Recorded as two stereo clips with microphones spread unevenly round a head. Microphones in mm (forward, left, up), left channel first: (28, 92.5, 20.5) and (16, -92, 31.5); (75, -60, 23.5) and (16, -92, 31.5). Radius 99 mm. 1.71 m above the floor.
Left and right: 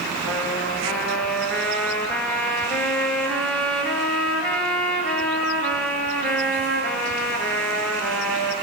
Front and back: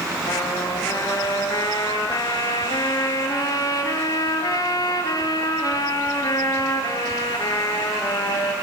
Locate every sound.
0.2 s a trumpet: 5° right, 7 m